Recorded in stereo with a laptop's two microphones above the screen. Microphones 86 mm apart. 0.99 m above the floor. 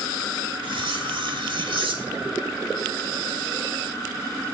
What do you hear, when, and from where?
0.6 s cutlery clinking: 75° right (ahead or behind), 1.5 m